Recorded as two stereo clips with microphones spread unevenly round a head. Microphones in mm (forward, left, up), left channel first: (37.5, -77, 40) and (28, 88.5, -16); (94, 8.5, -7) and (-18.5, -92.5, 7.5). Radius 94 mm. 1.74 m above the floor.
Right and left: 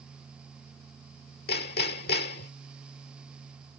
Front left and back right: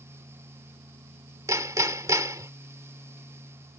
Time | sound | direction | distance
1.5 | hammering | 70° right | ?